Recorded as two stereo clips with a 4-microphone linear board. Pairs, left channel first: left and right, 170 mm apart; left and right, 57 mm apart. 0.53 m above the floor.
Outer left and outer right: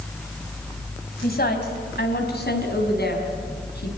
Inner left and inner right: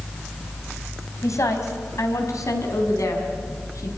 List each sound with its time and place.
1.2 s a woman speaking: 70° left (ahead or behind), 4 m; by 4.0 s 75° left (ahead or behind), 5.5 m